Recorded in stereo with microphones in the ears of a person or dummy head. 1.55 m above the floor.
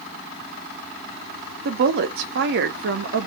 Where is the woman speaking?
65° right (ahead or behind), 0.8 m.